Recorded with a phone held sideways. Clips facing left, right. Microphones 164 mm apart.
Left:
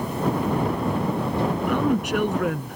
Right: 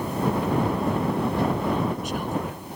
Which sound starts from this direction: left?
A woman speaking, at 1.7 s.